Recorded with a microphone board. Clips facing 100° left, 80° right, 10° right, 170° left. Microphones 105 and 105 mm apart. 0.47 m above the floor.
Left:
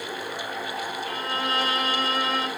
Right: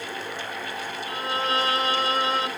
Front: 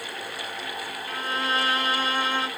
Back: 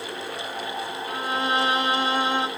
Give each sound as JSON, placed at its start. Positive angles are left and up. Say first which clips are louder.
{"t": 1.1, "sound": "a violin", "louder": "right 4 dB, back 2 dB", "azimuth_deg": -125, "distance_m": 0.8}